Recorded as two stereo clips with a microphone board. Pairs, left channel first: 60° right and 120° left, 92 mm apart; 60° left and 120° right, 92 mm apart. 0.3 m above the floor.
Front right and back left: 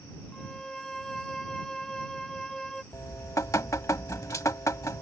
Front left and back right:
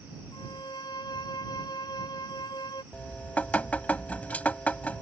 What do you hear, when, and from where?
0.3 s a violin: 25° left
2.9 s dripping: 10° right